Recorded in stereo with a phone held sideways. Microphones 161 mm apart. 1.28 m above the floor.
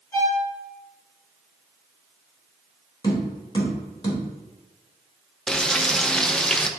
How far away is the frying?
About 0.6 m.